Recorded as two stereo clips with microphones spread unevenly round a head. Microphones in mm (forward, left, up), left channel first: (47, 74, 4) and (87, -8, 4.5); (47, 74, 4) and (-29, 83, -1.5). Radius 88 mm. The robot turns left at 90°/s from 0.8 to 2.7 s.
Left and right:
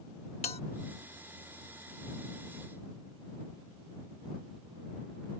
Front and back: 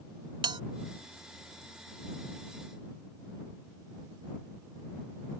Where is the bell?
170° left.